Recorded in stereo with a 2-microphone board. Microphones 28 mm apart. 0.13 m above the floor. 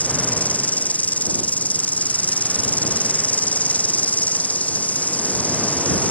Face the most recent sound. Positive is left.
turn(degrees=65)  # may be behind; listen again after turning